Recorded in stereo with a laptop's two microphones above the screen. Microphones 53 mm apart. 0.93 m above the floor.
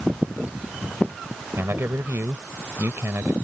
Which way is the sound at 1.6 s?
50° right (ahead or behind).